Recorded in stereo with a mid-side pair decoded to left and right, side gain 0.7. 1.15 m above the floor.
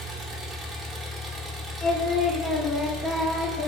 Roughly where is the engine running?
Ahead right.